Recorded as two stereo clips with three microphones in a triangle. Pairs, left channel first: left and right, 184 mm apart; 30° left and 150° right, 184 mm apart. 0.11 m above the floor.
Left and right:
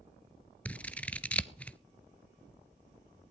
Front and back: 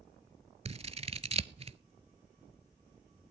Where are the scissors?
170° left, 0.5 m.